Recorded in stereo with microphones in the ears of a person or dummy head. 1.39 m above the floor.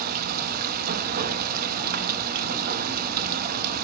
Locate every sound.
0.0 s running water: 45° right (ahead or behind), 1.0 m